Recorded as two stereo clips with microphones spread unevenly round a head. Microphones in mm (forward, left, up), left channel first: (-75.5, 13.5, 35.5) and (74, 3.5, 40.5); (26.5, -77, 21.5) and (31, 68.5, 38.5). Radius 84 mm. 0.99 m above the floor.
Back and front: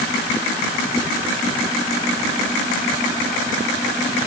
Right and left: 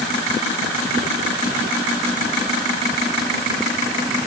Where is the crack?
No crack in this recording.